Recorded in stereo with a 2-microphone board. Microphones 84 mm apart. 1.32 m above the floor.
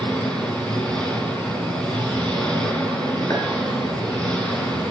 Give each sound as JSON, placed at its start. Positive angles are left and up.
{"t": 0.0, "sound": "an engine running", "side_deg": 15, "distance_m": 6.0}
{"t": 3.3, "sound": "a clink", "side_deg": 40, "distance_m": 9.5}